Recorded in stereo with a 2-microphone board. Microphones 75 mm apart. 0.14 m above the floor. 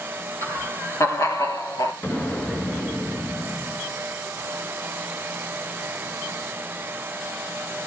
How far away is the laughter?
About 4 m.